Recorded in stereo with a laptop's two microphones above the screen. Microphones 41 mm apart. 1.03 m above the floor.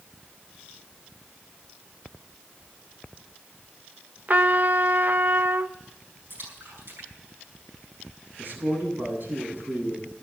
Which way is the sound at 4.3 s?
45° right (ahead or behind).